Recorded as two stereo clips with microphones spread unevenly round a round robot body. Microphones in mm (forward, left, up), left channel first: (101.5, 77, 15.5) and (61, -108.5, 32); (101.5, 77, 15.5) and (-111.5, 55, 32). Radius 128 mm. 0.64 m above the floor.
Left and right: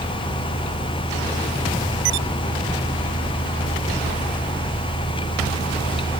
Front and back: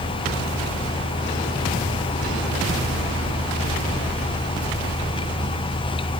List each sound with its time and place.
Only background noise.